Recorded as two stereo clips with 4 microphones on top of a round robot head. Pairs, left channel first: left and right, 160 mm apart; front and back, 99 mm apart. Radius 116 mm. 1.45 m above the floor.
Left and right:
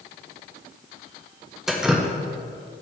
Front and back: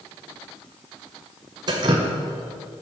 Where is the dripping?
175° right, 0.5 m.